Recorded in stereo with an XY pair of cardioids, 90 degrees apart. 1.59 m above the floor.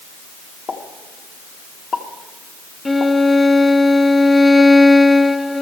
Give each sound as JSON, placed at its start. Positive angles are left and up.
{"t": 0.7, "sound": "a pop", "azimuth_deg": 55, "distance_m": 1.9}
{"t": 2.9, "sound": "a violin", "azimuth_deg": 20, "distance_m": 0.9}